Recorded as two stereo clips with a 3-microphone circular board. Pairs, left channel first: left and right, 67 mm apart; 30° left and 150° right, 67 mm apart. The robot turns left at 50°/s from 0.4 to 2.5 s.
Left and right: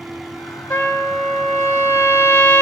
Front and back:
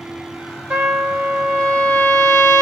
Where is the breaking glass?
I don't hear breaking glass.